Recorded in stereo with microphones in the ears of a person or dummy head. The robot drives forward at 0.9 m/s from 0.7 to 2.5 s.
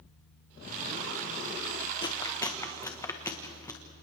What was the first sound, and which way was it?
Chewing, 30° left (ahead or behind).